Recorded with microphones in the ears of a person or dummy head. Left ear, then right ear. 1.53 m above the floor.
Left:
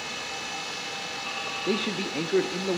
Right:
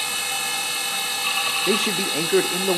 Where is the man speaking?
40° right (ahead or behind), 0.6 m.